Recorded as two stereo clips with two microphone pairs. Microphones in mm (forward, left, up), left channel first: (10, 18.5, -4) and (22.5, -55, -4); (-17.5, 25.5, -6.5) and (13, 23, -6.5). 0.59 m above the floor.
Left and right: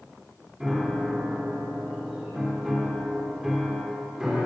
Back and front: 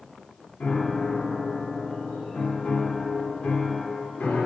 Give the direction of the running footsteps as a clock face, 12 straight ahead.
No running footsteps in this recording.